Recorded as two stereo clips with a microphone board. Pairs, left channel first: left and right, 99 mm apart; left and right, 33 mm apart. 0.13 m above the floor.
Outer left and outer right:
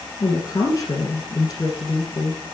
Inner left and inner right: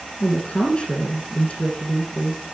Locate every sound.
0.2 s a woman speaking: 40° left (ahead or behind), 1.8 m